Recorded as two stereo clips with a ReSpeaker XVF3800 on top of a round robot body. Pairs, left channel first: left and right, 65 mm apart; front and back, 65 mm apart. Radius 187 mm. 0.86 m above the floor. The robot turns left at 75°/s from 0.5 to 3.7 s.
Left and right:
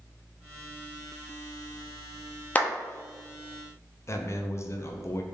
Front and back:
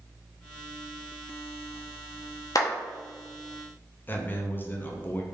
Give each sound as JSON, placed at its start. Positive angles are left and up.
{"t": 2.5, "sound": "a clap", "azimuth_deg": 25, "distance_m": 1.0}
{"t": 4.1, "sound": "a man speaking", "azimuth_deg": 50, "distance_m": 0.7}